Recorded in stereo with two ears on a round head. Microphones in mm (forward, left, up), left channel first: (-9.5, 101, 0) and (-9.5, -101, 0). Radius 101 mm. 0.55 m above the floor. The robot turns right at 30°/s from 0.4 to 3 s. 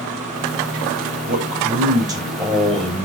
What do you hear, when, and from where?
1.3 s a man speaking: 45° right, 3 m; by 3.0 s 10° left, 3 m